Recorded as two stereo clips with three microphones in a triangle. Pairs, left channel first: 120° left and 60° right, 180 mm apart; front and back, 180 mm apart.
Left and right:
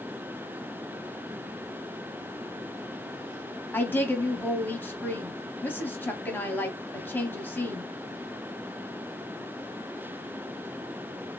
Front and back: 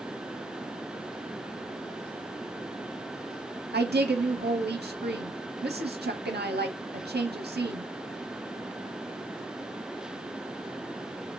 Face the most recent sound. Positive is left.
turn(degrees=-160)